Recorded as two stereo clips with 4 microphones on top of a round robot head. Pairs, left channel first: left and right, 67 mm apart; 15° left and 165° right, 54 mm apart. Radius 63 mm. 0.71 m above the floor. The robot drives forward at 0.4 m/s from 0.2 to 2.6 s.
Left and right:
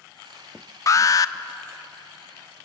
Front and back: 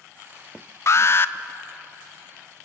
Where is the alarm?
50° left, 0.7 m; by 1.3 s 60° left, 0.6 m.